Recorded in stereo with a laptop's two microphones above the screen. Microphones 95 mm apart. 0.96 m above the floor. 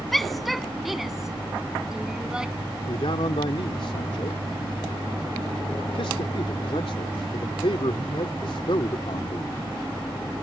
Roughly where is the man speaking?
Left.